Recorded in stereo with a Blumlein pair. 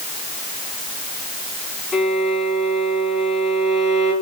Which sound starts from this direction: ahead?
A violin, at 1.9 s.